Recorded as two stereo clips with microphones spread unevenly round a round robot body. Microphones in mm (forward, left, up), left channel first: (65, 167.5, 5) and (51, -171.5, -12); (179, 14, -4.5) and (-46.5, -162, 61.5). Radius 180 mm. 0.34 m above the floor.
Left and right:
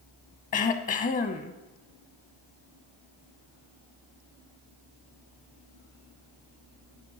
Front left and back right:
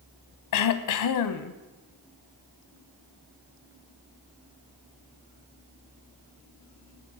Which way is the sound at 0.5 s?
20° left.